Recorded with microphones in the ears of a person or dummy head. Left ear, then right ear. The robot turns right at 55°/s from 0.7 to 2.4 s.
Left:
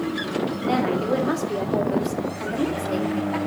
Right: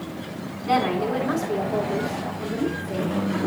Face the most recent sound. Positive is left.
turn(degrees=95)